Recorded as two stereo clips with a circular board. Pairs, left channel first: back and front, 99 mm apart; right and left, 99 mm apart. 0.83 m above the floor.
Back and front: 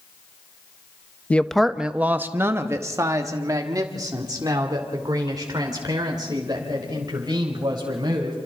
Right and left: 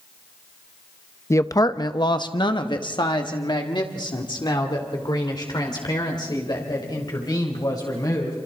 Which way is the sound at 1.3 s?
120° right.